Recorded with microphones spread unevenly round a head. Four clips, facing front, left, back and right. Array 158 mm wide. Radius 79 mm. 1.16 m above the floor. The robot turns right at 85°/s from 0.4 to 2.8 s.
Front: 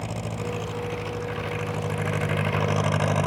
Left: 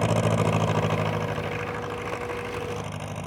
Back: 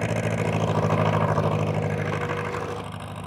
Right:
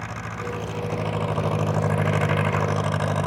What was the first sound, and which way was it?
An engine running, 120° left.